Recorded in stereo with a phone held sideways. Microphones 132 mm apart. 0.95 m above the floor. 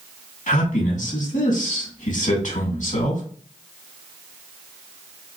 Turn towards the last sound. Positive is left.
turn(degrees=75)  # may be behind; listen again after turning